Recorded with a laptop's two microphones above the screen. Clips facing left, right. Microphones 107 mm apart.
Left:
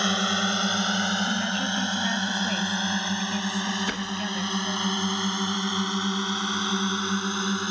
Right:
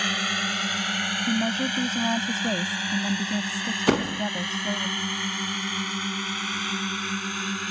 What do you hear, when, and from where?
0.0 s a drone: 25° left (ahead or behind); by 7.7 s 20° left (ahead or behind)
1.3 s a woman speaking: 30° right (ahead or behind)
3.9 s a door slam: 75° right (ahead or behind)